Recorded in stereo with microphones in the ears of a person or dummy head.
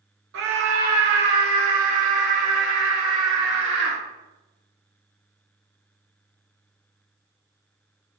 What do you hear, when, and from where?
0.3 s a scream: 80° right, 1.4 m; by 4.0 s 45° right (ahead or behind), 4.5 m